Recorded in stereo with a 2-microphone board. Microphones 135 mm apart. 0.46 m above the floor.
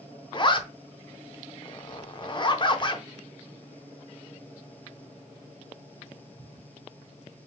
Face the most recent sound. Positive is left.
turn(degrees=35)  # may be behind; listen again after turning